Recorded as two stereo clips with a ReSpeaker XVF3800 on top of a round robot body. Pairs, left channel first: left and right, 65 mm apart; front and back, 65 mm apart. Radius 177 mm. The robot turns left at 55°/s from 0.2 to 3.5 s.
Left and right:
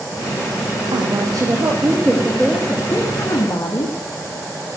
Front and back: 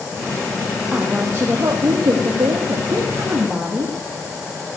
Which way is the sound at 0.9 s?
105° right.